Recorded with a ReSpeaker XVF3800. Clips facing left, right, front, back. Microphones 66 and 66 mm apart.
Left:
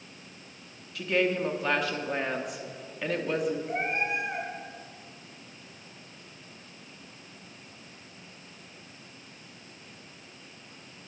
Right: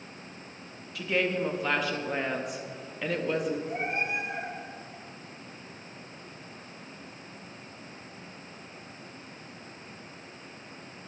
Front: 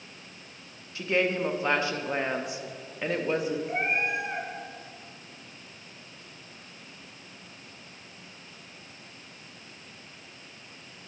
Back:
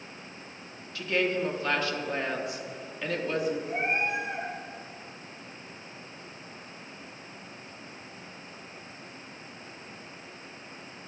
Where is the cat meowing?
40° left, 2.5 m.